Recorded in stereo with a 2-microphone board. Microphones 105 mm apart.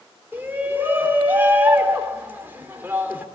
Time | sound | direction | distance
0.3 | a shout | 20° right (ahead or behind) | 3.5 m